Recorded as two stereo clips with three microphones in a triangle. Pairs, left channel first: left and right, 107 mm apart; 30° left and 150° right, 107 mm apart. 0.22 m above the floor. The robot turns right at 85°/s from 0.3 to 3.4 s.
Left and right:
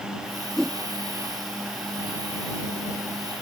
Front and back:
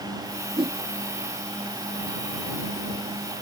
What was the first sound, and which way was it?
A whoosh, 170° left.